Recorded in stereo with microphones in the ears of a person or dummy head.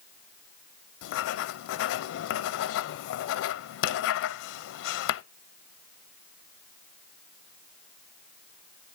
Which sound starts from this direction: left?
Writing, at 1.0 s.